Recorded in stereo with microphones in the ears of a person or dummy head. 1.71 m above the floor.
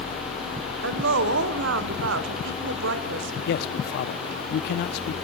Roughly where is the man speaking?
Left.